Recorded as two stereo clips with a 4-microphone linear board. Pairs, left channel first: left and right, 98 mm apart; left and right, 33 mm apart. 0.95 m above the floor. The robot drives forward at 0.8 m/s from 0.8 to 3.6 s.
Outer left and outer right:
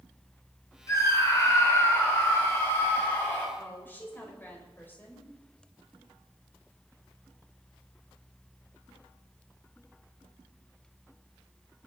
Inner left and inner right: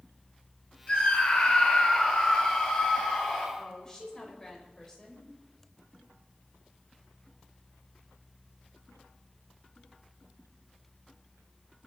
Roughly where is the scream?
Left.